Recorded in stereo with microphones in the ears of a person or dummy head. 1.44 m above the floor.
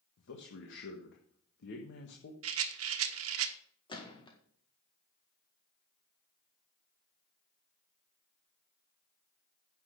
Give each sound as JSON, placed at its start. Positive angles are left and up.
{"t": 0.2, "sound": "a man speaking", "side_deg": 60, "distance_m": 1.4}
{"t": 2.4, "sound": "a rattle", "side_deg": -85, "distance_m": 1.2}
{"t": 3.9, "sound": "a gunshot", "side_deg": 20, "distance_m": 1.7}